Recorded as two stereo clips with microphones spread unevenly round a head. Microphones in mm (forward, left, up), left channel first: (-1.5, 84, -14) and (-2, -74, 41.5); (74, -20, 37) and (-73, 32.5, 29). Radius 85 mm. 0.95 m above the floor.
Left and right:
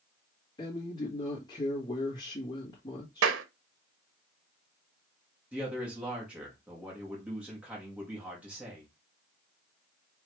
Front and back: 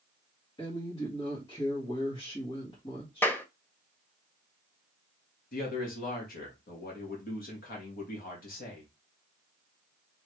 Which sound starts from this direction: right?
A clap, at 3.2 s.